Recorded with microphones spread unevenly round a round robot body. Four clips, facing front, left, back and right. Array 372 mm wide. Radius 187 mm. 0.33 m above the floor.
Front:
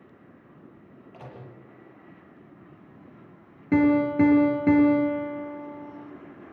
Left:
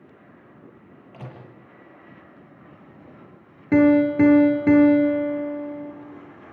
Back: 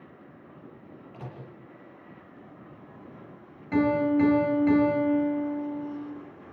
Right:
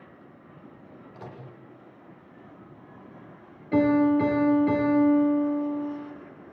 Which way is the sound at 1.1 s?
110° left.